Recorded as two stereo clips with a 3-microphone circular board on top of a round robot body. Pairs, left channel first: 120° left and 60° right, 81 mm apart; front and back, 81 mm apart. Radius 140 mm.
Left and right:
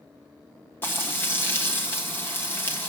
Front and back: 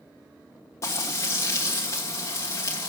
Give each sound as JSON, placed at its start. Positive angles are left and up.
{"t": 0.8, "sound": "frying", "azimuth_deg": 55, "distance_m": 1.2}